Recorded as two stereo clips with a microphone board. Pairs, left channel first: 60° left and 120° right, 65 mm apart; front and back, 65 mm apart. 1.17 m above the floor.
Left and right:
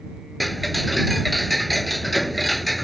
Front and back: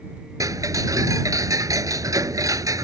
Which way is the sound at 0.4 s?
150° left.